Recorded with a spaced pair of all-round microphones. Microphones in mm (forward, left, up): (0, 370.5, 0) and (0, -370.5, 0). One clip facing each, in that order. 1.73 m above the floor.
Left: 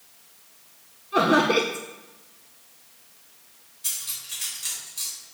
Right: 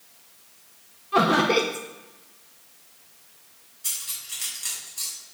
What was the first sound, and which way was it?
Laughter, 35° right (ahead or behind).